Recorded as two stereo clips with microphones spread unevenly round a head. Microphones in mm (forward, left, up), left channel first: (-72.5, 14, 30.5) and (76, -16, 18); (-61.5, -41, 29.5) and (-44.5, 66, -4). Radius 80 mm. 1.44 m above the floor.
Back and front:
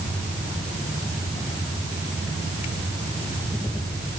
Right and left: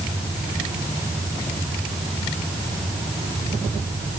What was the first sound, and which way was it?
Only background noise.